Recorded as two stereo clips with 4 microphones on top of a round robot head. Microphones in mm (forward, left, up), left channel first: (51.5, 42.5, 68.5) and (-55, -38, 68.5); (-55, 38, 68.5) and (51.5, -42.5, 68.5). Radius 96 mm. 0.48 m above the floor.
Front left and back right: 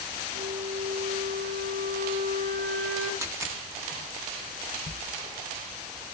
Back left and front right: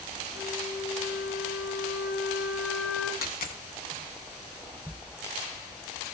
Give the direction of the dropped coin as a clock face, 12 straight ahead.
7 o'clock.